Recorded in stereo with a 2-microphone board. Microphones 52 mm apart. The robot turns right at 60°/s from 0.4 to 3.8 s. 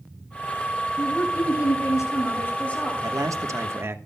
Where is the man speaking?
95° right, 1.2 m; by 4.0 s 50° right, 1.2 m.